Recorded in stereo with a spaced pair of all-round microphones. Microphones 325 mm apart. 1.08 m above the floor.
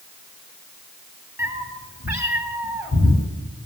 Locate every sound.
1.4 s a cat meowing: 10° right (ahead or behind), 2 m